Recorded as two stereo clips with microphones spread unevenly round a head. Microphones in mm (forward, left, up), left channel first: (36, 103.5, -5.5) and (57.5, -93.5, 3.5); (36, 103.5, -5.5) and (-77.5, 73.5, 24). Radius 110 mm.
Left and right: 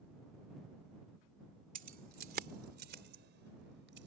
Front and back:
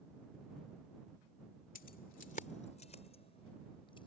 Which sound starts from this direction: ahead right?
Keys jangling, at 1.8 s.